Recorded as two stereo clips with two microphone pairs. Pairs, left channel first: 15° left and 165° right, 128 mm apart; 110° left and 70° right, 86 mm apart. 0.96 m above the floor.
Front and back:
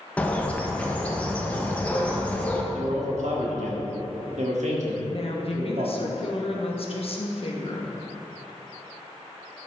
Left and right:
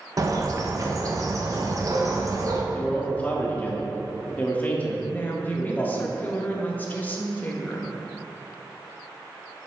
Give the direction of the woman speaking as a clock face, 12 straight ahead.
10 o'clock.